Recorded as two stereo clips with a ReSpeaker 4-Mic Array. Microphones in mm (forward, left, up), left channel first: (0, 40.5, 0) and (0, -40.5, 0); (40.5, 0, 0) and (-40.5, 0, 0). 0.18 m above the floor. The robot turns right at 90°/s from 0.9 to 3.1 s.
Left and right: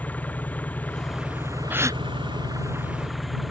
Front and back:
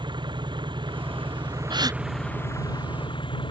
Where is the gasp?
160° right; by 2.0 s 130° right.